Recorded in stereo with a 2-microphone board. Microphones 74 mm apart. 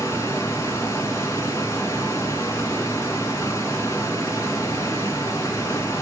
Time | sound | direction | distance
0.0 | running water | 45° left (ahead or behind) | 2.5 m